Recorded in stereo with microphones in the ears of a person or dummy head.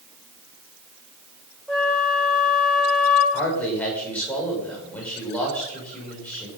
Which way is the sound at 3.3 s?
10° left (ahead or behind).